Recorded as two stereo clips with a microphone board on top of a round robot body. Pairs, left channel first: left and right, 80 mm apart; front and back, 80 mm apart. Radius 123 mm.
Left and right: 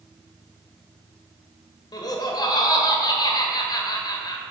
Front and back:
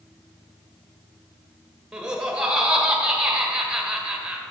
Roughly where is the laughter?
Left.